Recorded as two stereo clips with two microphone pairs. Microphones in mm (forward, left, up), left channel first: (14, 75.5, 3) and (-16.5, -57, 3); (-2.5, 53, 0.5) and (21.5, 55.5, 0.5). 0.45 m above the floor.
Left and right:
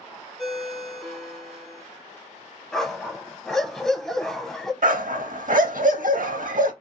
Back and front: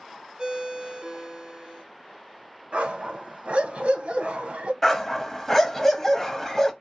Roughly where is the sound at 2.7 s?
Ahead.